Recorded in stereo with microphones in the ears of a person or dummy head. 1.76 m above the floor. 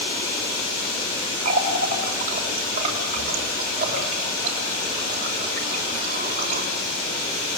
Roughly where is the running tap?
Right.